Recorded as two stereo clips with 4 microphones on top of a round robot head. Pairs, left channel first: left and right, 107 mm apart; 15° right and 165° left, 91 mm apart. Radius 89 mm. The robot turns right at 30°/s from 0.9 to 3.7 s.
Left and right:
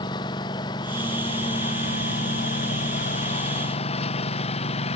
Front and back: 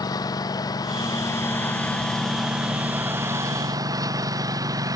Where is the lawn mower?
35° left; by 5.0 s 115° left.